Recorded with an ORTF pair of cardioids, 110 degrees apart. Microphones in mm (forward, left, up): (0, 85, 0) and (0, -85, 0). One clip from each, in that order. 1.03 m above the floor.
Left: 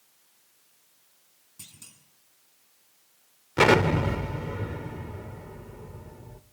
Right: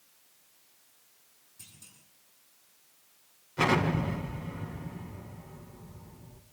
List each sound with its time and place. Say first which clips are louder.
1.6 s a clunk: left 5 dB; 55° left, 8 m
3.6 s an explosion: left 7 dB; 70° left, 1.8 m